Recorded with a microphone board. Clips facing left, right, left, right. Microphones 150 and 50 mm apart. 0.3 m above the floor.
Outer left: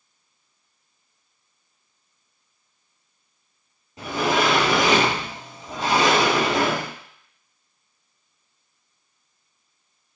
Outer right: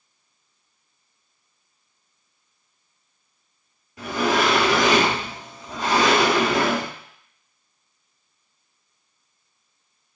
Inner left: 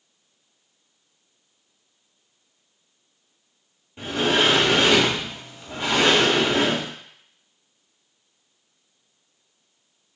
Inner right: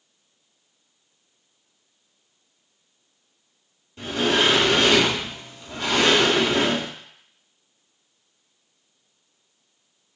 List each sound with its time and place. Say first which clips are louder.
4.0 s a sliding door: outer right 1 dB, even; 25° left (ahead or behind), 1.4 m